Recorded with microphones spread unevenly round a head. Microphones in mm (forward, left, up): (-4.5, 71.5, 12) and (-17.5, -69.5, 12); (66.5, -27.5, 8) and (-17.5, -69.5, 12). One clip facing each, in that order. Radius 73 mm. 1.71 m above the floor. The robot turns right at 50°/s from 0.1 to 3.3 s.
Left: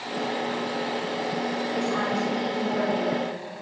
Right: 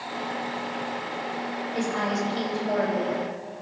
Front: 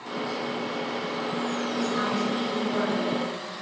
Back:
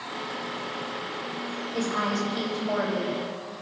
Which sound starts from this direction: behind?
A woman speaking, at 1.7 s.